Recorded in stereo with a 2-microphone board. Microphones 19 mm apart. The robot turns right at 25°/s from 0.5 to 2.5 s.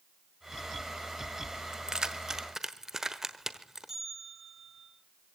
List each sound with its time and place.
1.7 s keys jangling: 40° right (ahead or behind), 1.2 m; by 3.9 s 30° right (ahead or behind), 1.2 m
3.9 s a bell: 15° right (ahead or behind), 7.5 m